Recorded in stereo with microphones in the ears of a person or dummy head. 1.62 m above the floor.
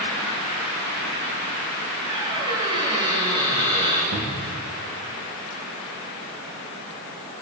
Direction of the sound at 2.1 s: 30° right (ahead or behind).